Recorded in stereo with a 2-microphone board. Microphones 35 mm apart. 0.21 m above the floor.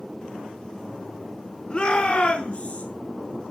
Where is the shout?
25° left (ahead or behind), 2.5 m; by 2.9 s 40° left (ahead or behind), 2.5 m.